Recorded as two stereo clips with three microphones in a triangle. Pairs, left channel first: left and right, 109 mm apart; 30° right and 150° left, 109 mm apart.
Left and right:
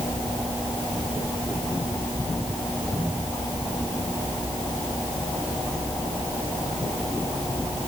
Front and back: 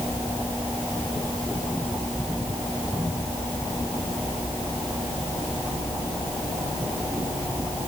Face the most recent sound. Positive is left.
No sound to turn to.